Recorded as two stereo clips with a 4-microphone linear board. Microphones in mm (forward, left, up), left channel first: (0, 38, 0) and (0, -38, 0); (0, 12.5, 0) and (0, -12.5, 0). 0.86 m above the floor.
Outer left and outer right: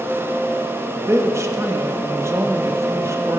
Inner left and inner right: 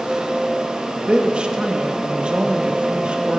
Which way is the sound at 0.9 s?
40° right (ahead or behind).